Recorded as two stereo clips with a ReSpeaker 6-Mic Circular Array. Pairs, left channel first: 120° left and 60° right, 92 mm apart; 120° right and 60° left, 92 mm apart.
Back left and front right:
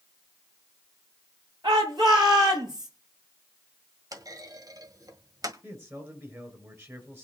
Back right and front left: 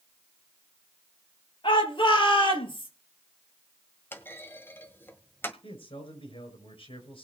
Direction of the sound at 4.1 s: 65° right.